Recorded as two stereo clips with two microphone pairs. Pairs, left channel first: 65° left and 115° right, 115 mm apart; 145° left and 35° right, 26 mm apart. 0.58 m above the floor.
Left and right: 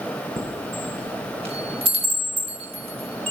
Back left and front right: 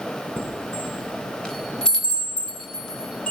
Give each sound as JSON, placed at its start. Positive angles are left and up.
{"t": 0.4, "sound": "a chime", "azimuth_deg": -150, "distance_m": 4.5}